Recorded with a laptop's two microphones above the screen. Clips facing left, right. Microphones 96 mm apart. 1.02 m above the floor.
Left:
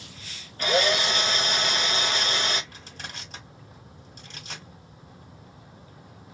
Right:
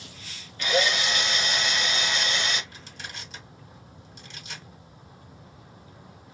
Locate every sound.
0.6 s a drill: 45° left (ahead or behind), 0.6 m
2.7 s crushing: 45° left (ahead or behind), 1.6 m